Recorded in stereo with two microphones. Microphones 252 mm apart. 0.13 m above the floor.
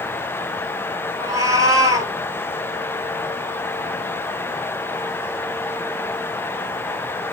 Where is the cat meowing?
15° right (ahead or behind), 1.2 m.